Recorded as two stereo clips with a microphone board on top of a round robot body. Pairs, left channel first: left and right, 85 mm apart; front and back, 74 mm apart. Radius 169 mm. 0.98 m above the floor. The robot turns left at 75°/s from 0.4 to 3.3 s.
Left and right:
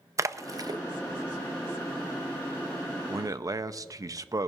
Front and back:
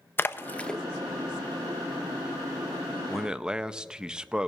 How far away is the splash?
About 0.7 m.